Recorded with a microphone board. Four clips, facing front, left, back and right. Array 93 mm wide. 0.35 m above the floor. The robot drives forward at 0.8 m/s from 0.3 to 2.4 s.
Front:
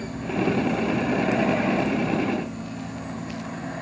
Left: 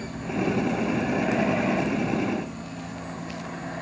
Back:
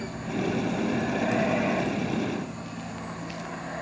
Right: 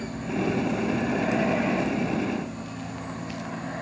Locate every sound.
Only background noise.